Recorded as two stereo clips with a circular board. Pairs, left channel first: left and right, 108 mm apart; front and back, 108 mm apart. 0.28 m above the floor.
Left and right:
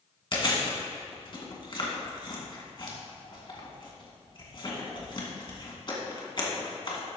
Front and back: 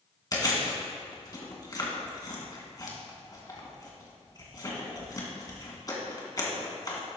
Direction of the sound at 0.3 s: 50° left.